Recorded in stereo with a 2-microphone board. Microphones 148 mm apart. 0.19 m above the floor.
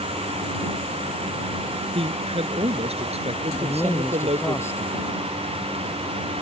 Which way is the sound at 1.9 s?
40° right (ahead or behind).